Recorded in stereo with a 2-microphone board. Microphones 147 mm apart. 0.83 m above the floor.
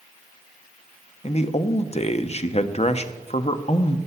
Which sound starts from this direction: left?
A man speaking, at 1.2 s.